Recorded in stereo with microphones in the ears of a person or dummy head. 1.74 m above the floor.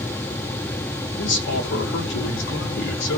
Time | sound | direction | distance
1.2 | a man speaking | 65° left (ahead or behind) | 2.5 m